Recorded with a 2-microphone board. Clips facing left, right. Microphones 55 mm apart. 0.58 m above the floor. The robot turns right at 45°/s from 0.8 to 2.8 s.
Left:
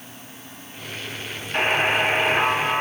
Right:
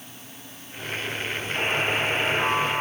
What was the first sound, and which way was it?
A buzzer, 50° left.